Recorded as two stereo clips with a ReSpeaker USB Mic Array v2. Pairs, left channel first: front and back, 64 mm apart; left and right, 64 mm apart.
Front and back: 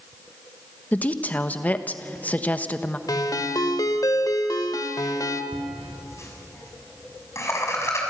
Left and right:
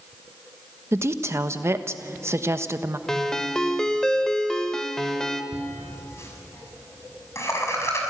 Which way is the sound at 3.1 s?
10° left.